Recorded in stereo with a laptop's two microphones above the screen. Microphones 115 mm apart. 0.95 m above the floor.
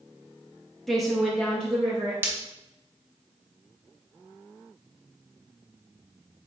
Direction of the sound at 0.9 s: Centre (ahead or behind).